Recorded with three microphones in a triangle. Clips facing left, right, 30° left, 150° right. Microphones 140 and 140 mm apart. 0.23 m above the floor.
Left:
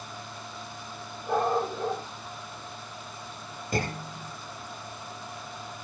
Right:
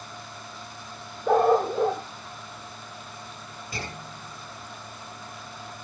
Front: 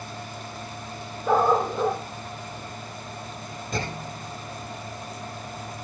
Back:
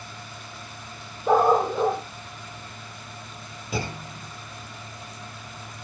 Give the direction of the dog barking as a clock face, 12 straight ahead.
2 o'clock.